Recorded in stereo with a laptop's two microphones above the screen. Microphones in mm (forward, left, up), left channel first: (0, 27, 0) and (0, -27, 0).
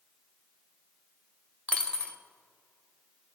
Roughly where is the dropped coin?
Left.